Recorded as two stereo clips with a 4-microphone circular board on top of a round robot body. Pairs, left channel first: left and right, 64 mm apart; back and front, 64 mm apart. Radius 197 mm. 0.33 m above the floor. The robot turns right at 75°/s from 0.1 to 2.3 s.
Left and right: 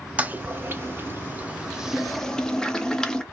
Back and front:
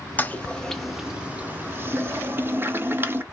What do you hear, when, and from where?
0.2 s a toilet flushing: 140° right, 0.9 m; by 3.2 s 20° left, 0.9 m